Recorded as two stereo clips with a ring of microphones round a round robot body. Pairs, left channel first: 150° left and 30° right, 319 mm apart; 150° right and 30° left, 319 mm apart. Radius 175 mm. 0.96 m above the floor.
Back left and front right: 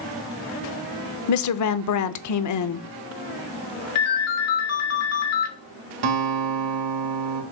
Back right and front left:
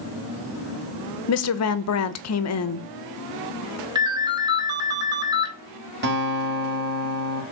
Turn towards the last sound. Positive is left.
turn(degrees=-30)